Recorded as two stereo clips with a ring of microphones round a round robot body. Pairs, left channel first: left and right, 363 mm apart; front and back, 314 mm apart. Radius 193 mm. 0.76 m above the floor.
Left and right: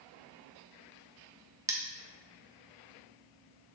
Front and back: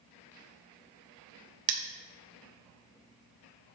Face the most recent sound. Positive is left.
turn(degrees=-170)